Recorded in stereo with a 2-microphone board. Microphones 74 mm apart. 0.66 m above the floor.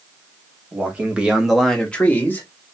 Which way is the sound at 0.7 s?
20° right (ahead or behind).